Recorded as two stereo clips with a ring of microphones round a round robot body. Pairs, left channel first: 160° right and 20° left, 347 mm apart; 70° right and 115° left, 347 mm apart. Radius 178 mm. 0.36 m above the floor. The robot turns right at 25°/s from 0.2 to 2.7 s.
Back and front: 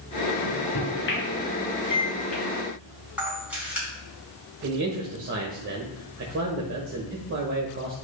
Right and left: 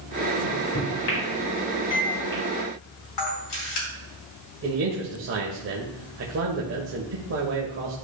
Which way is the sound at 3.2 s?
65° right.